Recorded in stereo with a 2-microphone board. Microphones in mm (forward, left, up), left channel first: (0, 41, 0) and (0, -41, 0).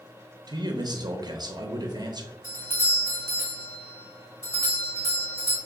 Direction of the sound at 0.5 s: 55° right (ahead or behind).